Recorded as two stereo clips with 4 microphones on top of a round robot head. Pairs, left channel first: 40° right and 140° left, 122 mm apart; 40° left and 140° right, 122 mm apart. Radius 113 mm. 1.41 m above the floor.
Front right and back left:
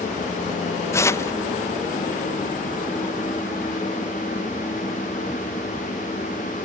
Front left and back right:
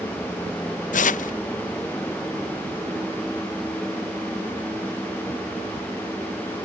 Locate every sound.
0.9 s tearing paper: 30° left